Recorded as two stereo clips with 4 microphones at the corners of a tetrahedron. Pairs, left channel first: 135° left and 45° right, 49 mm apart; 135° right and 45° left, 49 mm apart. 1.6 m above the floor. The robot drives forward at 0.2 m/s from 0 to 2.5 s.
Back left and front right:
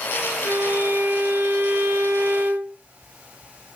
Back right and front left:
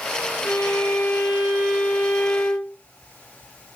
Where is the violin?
90° right, 5 m; by 2.8 s 95° right, 5 m.